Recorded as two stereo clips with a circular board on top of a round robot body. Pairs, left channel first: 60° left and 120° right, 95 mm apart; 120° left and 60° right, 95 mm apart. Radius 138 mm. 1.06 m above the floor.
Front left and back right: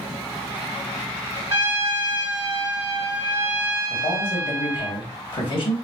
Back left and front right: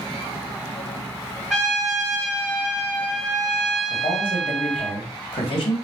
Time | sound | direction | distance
1.5 | a trumpet | 145° right | 2 m
3.9 | a man speaking | 90° left | 1.4 m